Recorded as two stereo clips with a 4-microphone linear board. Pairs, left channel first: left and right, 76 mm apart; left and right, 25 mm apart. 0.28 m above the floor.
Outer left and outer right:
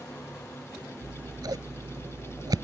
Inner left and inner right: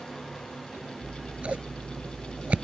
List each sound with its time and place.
1.0 s scissors: 65° right (ahead or behind)